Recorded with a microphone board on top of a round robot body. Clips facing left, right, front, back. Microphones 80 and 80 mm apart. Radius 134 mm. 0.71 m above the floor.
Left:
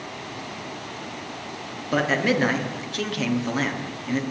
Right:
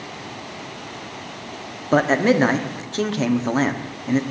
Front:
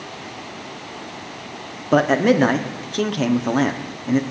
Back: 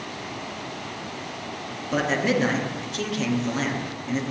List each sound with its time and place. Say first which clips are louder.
1.9 s a man speaking: right 5 dB, front 8 dB; 35° right, 1.5 m